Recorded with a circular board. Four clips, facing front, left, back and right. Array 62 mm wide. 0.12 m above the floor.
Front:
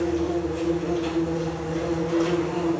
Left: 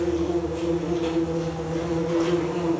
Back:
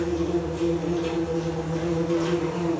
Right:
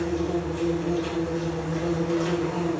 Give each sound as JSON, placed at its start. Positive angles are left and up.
{"t": 0.0, "sound": "an insect", "azimuth_deg": 60, "distance_m": 3.5}